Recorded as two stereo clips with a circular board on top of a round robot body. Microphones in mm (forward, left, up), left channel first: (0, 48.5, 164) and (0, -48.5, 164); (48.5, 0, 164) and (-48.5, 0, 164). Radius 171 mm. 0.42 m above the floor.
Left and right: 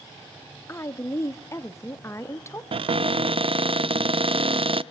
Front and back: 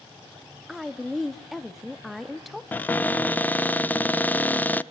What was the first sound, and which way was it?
A woman speaking, 90° left.